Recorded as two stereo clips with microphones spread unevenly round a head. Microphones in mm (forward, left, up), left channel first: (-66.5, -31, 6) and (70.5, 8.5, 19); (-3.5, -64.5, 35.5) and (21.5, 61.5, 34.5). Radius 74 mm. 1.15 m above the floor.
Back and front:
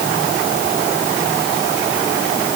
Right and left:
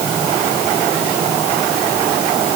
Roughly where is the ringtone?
I don't hear a ringtone.